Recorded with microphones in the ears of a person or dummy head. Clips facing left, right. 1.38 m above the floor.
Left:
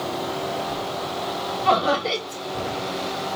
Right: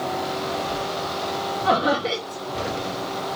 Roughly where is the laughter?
Right.